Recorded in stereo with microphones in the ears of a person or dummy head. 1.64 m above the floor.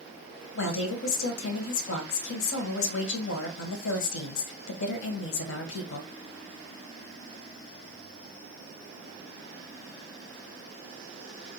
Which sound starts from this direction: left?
A woman speaking, at 0.6 s.